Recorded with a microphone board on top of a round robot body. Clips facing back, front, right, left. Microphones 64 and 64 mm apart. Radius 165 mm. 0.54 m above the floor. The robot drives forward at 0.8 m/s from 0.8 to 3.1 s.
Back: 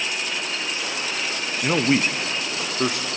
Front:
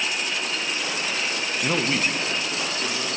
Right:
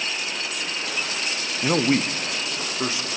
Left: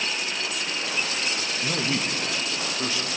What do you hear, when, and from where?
1.6 s a man speaking: 95° right, 0.8 m; by 3.1 s 160° right, 1.4 m